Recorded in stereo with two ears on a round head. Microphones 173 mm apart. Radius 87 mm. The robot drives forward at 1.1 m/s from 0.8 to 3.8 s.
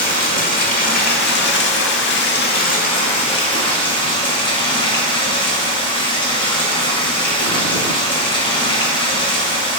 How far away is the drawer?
I don't hear a drawer.